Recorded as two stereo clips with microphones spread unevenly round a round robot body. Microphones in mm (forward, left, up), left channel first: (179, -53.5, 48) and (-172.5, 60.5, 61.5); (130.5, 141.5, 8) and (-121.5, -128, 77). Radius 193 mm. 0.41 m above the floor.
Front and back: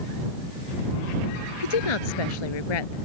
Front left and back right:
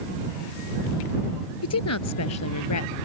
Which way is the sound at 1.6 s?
5° right.